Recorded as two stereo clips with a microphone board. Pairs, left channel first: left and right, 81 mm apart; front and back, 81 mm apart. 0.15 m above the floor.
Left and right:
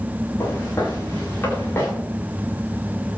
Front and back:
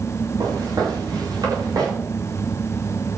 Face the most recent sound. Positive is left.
turn(degrees=145)